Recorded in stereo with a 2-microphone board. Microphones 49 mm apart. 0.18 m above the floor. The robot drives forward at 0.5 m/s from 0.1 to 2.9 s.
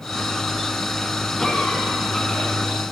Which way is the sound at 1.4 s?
5° left (ahead or behind).